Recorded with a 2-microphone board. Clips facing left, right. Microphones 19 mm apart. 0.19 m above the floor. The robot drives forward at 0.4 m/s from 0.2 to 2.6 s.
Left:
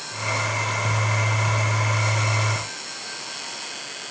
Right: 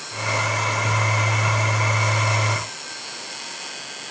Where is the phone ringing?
I don't hear a phone ringing.